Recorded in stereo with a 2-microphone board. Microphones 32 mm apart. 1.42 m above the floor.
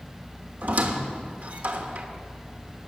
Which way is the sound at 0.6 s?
55° right (ahead or behind).